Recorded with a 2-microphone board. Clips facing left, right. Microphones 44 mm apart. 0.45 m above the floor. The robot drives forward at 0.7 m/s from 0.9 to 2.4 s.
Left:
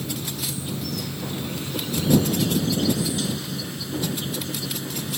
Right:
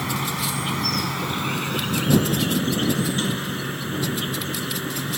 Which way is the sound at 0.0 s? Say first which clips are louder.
Right 5 dB; 85° right.